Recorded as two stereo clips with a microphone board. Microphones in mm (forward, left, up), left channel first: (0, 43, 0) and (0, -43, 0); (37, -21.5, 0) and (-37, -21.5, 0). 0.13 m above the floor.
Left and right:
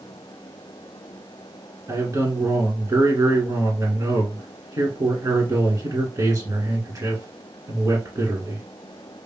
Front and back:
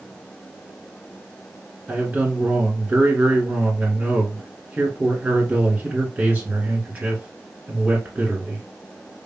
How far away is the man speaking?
About 1.7 m.